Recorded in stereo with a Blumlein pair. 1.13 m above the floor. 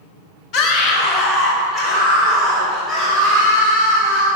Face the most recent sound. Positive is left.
turn(degrees=-5)